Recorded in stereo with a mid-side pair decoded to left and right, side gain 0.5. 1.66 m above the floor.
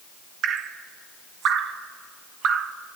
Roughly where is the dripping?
Ahead right.